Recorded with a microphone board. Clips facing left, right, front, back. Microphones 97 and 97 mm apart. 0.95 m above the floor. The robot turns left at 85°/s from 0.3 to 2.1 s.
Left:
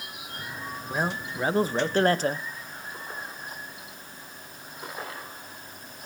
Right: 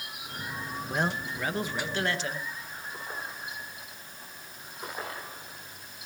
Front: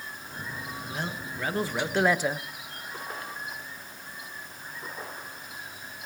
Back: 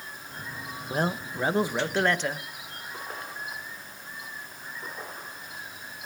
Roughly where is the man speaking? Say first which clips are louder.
Left 1 dB, back 8 dB; behind.